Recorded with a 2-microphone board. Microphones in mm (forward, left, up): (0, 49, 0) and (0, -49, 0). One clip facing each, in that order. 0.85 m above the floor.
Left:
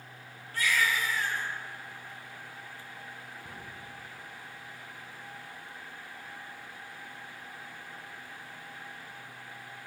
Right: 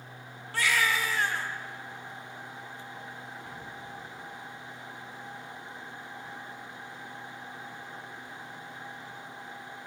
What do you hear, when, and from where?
0.5 s a baby crying: 80° right, 1.0 m
3.4 s a cupboard door: 25° left (ahead or behind), 4.5 m